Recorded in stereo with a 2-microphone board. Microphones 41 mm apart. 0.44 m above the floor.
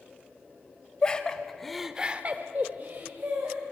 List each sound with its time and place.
1.0 s laughter: 25° left (ahead or behind), 1.8 m; by 3.6 s 50° right (ahead or behind), 2.5 m